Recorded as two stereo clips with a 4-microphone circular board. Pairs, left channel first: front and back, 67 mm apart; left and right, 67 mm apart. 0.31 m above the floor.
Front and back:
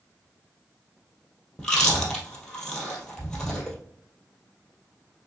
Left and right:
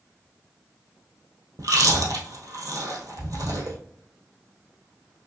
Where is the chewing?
80° right, 1.7 m.